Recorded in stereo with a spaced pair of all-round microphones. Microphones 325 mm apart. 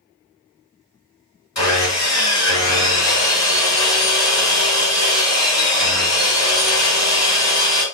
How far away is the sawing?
About 2.5 m.